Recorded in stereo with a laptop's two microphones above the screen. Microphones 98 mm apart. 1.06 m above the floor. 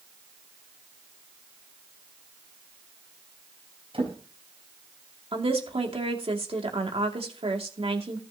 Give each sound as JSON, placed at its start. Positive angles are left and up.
{"t": 3.9, "sound": "a drawer", "side_deg": -70, "distance_m": 4.0}
{"t": 5.3, "sound": "a woman speaking", "side_deg": -75, "distance_m": 2.5}